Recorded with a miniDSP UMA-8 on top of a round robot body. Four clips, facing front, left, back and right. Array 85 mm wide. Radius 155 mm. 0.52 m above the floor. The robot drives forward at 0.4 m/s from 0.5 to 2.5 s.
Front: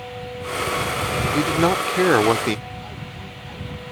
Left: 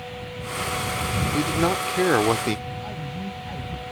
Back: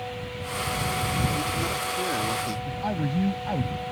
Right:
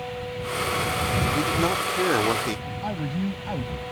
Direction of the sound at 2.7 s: 145° right.